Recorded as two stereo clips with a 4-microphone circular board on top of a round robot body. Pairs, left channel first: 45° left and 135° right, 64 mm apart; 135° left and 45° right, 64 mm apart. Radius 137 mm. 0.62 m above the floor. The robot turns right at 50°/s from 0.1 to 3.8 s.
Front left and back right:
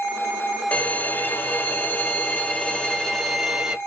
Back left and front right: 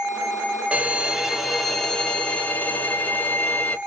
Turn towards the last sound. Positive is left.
turn(degrees=160)